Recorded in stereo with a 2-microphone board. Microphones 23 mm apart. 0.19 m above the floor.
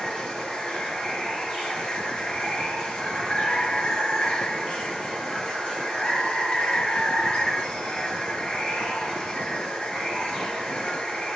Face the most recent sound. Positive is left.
turn(degrees=65)  # may be behind; listen again after turning